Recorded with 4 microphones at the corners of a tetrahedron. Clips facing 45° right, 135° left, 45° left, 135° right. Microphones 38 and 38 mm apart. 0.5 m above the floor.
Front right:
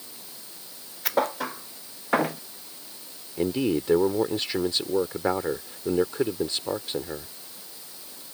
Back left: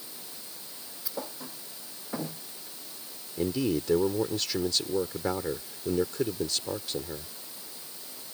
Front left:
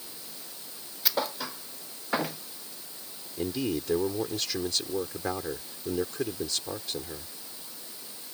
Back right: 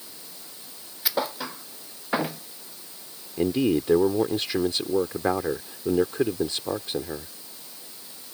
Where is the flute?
No flute in this recording.